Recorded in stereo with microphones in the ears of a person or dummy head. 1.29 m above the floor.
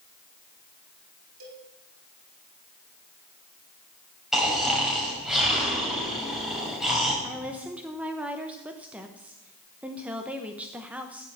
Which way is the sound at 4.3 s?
Centre (ahead or behind).